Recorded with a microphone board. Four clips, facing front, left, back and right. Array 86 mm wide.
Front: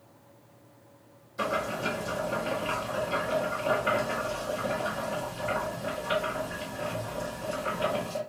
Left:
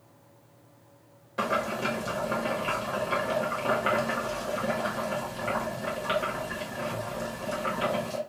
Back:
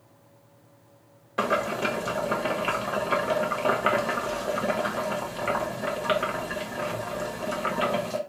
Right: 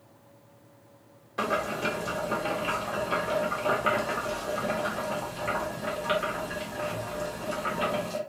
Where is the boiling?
175° right, 1.0 m.